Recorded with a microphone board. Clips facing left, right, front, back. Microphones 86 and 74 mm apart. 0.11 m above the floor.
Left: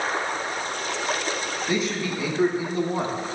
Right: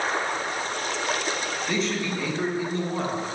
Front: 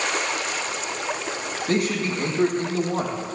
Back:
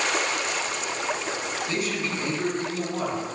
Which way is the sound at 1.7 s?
10° left.